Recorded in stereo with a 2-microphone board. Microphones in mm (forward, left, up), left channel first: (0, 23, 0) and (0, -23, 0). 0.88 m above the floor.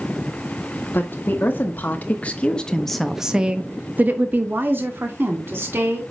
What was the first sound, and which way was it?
A woman speaking, 50° left (ahead or behind).